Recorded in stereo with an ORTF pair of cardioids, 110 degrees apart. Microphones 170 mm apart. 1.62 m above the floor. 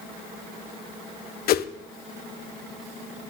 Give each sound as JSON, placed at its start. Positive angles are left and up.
{"t": 1.5, "sound": "a whoosh", "azimuth_deg": 65, "distance_m": 0.7}